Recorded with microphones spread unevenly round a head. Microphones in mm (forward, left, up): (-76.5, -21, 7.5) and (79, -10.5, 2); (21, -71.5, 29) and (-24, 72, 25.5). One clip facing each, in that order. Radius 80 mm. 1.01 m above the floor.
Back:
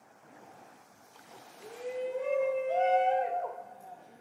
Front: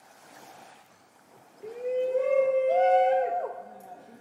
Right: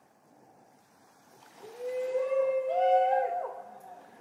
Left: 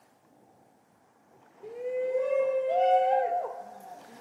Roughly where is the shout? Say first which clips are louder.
Front 8 dB, left 3 dB; ahead left.